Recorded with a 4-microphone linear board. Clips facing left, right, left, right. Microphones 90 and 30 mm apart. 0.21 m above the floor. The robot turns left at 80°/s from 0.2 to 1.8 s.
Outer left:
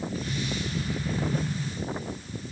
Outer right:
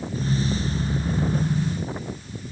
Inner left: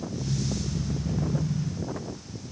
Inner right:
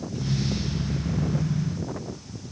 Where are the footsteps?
I don't hear footsteps.